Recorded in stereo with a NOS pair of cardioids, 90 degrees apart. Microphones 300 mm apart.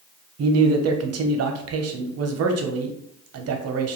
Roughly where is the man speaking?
Ahead right.